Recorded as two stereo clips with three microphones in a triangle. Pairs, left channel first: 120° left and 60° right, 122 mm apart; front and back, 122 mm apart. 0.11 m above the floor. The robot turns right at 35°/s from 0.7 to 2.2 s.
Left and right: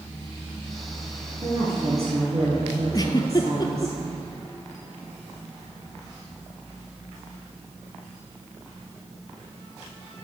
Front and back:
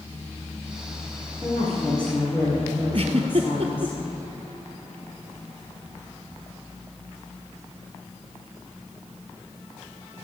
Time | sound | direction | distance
1.4 | a woman speaking | 100° right | 2.5 m
2.9 | a giggle | 165° left | 0.8 m